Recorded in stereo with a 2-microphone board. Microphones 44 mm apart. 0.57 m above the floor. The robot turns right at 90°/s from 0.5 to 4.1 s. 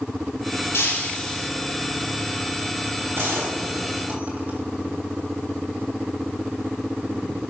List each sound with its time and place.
0.7 s breaking glass: 120° left, 3 m; by 1.5 s 175° right, 3 m
3.1 s a gunshot: 125° right, 3.5 m; by 4.6 s 40° right, 3.5 m